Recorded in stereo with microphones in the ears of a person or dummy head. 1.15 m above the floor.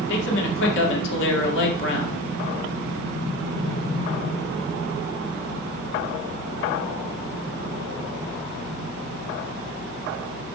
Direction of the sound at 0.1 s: 70° left (ahead or behind).